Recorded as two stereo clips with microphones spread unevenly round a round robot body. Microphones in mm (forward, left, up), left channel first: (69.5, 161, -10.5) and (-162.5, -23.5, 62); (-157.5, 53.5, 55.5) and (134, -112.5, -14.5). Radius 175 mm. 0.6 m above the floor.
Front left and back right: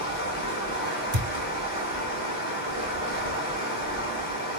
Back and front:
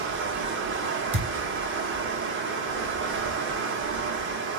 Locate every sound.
0.0 s running water: 5° left, 1.0 m
1.1 s a thud: 105° right, 1.4 m